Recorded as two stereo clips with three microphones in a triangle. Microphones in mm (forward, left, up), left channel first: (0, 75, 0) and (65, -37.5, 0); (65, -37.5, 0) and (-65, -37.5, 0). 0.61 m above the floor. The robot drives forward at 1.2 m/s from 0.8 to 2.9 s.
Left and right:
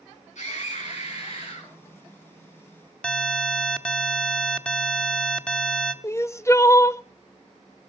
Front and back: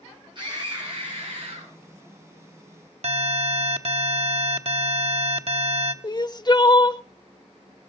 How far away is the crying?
About 0.6 m.